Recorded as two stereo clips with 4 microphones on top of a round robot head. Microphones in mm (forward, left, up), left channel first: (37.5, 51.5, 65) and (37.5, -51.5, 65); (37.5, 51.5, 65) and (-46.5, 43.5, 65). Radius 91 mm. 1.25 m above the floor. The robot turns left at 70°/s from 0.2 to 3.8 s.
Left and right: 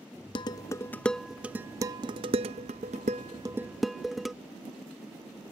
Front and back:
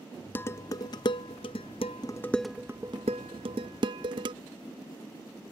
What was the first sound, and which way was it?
Dishes clattering, 65° left.